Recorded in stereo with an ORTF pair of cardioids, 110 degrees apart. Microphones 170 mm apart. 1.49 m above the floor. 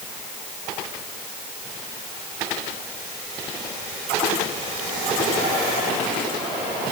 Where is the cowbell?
No cowbell in this recording.